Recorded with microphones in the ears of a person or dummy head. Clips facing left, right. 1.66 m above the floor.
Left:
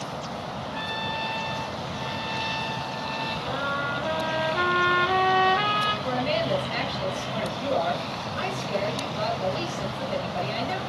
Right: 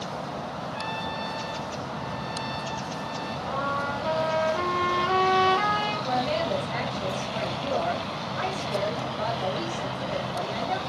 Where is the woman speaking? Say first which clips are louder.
Left 1 dB; 50° left (ahead or behind), 2.5 m.